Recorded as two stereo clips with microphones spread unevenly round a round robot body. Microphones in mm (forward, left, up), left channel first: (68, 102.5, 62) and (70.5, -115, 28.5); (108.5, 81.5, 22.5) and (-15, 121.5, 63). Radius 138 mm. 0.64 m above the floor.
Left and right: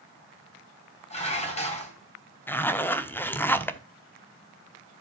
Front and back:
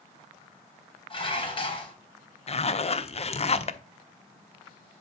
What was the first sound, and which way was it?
Dishes clattering, 30° left.